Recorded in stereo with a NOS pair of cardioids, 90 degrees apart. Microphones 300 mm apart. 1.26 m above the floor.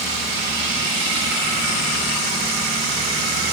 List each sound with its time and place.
Only background noise.